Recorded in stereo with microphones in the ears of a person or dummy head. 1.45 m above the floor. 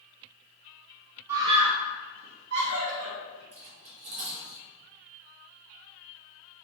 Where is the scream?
15° right (ahead or behind), 0.7 m; by 3.4 s 80° right, 1.6 m.